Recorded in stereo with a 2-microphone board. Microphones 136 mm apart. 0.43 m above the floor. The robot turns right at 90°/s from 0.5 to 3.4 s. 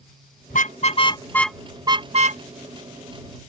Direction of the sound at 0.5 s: 80° left.